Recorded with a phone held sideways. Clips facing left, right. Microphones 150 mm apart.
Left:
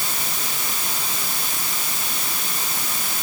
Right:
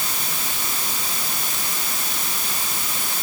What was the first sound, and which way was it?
Only background noise.